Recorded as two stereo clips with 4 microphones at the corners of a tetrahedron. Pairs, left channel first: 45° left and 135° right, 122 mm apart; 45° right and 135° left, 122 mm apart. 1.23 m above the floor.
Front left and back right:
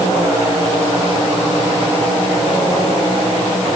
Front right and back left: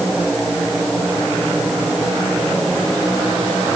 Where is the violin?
No violin in this recording.